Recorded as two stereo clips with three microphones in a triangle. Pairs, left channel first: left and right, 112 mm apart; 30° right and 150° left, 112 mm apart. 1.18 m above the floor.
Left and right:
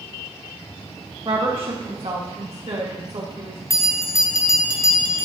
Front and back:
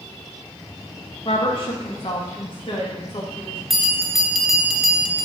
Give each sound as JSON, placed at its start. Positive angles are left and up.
{"t": 1.2, "sound": "a woman speaking", "azimuth_deg": -60, "distance_m": 1.4}
{"t": 3.7, "sound": "a bell", "azimuth_deg": 65, "distance_m": 0.8}